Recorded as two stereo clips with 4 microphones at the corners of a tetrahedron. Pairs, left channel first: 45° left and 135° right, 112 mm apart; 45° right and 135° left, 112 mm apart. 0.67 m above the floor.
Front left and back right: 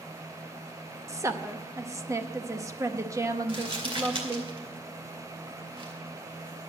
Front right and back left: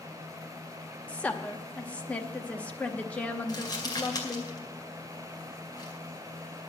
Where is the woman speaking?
110° right, 0.7 m.